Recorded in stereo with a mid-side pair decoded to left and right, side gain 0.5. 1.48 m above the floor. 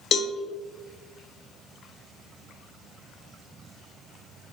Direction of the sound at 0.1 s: 55° left.